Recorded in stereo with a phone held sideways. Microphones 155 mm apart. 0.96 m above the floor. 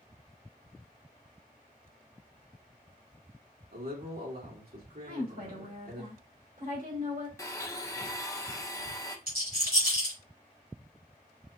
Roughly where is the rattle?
Right.